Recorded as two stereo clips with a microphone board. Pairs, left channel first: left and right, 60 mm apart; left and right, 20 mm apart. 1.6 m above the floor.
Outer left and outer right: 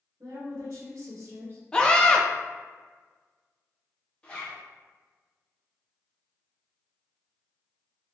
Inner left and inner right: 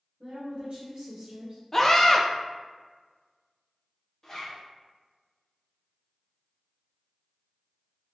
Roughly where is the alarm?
No alarm in this recording.